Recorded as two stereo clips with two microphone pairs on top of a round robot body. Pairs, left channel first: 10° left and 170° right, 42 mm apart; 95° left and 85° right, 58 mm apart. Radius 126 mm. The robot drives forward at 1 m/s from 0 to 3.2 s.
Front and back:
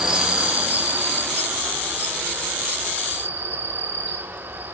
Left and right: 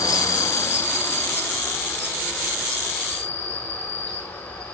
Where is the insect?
115° left, 1.0 m; by 4.7 s 165° left, 3.5 m.